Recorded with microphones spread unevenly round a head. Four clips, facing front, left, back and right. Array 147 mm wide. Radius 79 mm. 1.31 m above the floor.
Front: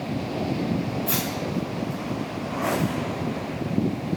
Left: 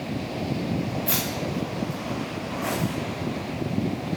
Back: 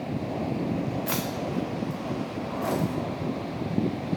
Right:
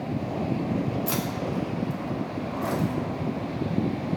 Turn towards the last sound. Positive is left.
turn(degrees=170)